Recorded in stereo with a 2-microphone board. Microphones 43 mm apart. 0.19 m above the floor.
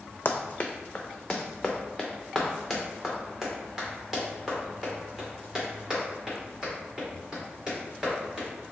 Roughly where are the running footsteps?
Left.